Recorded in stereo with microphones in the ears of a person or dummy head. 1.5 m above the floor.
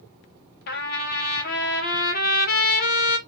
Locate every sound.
0.7 s a trumpet: 55° left (ahead or behind), 0.8 m